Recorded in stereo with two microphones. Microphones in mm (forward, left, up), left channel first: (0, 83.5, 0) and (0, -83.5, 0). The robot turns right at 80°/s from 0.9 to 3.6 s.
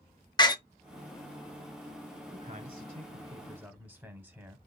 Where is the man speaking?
115° right, 1.0 m; by 4.6 s 15° right, 1.0 m.